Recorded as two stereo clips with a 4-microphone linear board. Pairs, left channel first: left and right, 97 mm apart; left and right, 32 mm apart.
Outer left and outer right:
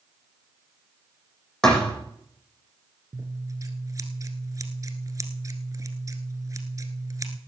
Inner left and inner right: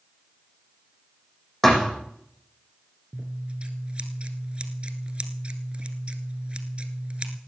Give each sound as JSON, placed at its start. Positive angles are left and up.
{"t": 1.6, "sound": "a thud", "side_deg": 5, "distance_m": 6.5}
{"t": 3.1, "sound": "scissors", "side_deg": -35, "distance_m": 1.5}